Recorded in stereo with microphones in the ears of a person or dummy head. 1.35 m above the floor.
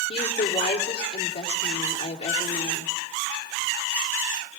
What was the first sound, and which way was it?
A woman speaking, 35° left (ahead or behind).